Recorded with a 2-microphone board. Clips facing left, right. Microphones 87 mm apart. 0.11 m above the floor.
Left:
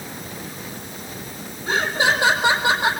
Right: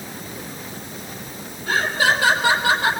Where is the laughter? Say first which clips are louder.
Right 1 dB; 20° left (ahead or behind), 4.5 m.